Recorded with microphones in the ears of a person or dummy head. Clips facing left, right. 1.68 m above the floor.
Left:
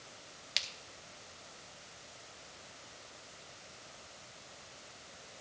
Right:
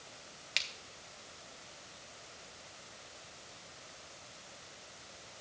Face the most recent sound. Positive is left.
turn(degrees=0)  # may be behind; listen again after turning